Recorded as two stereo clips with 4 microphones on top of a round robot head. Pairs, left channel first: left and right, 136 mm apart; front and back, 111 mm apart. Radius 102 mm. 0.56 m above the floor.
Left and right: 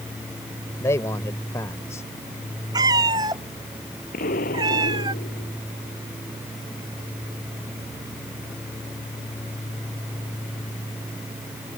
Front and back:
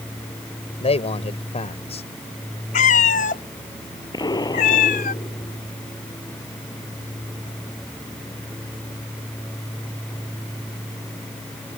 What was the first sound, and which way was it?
A man speaking, 15° left.